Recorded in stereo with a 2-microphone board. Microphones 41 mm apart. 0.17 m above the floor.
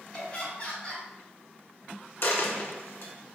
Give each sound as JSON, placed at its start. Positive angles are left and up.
{"t": 0.1, "sound": "laughter", "side_deg": 30, "distance_m": 1.9}
{"t": 2.2, "sound": "a dropped coin", "side_deg": 55, "distance_m": 0.5}